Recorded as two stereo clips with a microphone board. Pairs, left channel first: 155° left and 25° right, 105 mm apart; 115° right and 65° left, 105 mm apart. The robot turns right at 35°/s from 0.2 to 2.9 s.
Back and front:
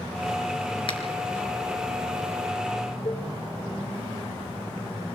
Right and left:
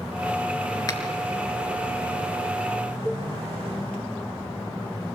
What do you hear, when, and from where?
0.9 s a finger snap: 165° right, 4 m; by 1.0 s 160° right, 4 m
3.0 s a cowbell: 170° right, 2.5 m